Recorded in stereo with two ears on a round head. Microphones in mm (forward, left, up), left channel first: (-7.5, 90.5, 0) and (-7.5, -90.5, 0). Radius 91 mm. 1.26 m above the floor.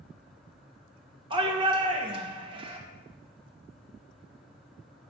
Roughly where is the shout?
Right.